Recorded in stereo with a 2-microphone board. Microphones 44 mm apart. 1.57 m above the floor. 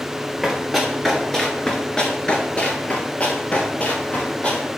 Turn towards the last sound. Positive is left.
turn(degrees=25)  # may be behind; listen again after turning